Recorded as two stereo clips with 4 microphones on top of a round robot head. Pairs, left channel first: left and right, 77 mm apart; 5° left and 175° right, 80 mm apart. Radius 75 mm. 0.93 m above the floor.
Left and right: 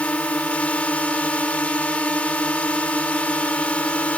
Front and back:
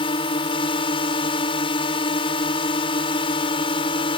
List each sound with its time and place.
0.0 s a drone: 15° left